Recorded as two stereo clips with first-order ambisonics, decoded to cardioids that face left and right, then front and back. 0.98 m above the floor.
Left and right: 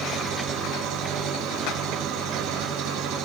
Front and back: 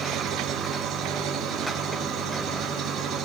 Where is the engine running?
120° right, 4.5 m.